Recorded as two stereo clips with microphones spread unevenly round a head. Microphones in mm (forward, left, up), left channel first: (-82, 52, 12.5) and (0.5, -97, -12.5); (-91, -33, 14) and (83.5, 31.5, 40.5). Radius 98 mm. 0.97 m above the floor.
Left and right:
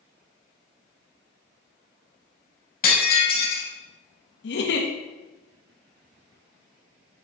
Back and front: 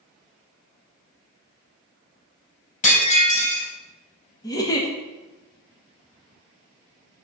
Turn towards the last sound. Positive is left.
turn(degrees=135)